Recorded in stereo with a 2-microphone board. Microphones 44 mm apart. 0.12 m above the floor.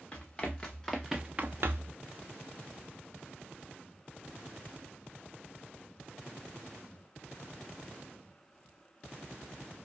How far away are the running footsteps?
About 1.9 m.